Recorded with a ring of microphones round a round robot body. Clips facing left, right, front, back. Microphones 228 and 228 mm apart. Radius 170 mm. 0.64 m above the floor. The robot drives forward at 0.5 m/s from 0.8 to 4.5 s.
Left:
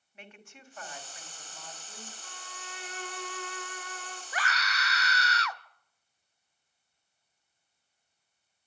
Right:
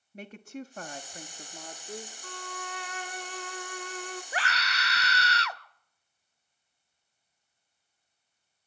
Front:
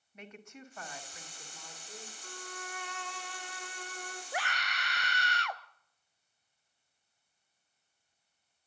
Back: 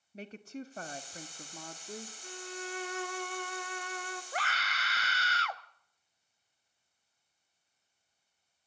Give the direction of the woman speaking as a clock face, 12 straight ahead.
4 o'clock.